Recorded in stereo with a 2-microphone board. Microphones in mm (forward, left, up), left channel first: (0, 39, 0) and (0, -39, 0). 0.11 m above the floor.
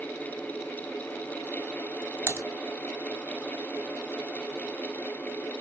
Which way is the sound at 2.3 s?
30° right (ahead or behind).